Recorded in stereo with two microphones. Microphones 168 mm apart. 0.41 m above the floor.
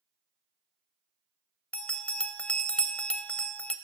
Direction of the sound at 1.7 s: 5° left (ahead or behind).